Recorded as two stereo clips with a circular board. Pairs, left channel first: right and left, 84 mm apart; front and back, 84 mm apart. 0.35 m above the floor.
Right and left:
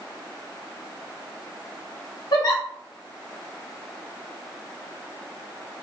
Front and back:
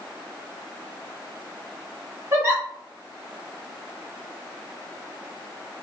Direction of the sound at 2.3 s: 125° right.